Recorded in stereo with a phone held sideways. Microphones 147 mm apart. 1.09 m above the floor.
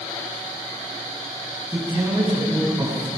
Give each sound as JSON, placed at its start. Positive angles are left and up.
{"t": 1.7, "sound": "a man speaking", "side_deg": -15, "distance_m": 8.0}